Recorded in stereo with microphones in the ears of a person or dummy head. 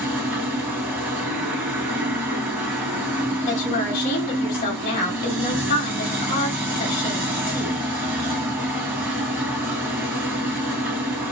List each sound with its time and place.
0.0 s a machine running: 10° right (ahead or behind), 1.4 m
3.5 s a woman speaking: 45° left (ahead or behind), 1.3 m